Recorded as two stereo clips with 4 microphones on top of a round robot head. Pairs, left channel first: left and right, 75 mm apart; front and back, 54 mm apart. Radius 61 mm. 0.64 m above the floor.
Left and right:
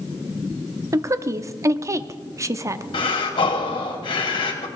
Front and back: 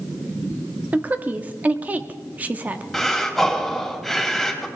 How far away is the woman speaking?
About 0.9 m.